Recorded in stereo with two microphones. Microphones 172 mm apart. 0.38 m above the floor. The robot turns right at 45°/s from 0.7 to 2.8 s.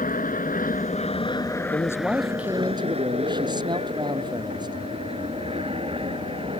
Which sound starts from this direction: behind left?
A man speaking, at 1.7 s.